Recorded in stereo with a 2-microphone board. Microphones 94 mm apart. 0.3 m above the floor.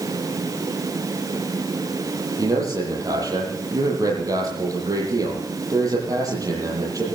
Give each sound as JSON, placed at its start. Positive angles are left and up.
{"t": 2.4, "sound": "a man speaking", "side_deg": -40, "distance_m": 10.0}